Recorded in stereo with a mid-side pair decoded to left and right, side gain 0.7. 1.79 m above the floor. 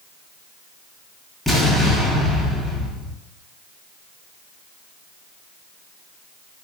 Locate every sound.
1.5 s an explosion: 10° left, 1.2 m